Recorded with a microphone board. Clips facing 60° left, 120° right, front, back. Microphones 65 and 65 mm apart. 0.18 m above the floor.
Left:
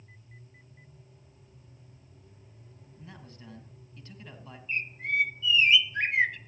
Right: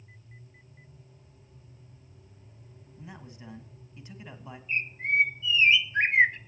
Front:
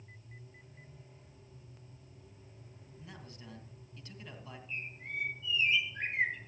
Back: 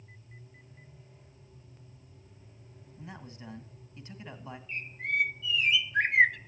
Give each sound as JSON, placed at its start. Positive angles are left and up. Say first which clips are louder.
{"t": 3.0, "sound": "a man speaking", "louder": "right 3 dB, back 6 dB", "azimuth_deg": -165, "distance_m": 1.5}
{"t": 4.7, "sound": "a bird", "louder": "right 3 dB, back 9 dB", "azimuth_deg": 180, "distance_m": 0.5}